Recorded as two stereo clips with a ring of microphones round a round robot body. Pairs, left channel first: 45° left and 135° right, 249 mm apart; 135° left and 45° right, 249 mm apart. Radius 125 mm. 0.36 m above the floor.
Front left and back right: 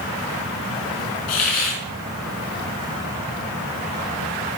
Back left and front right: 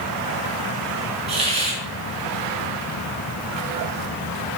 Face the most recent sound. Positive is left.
turn(degrees=20)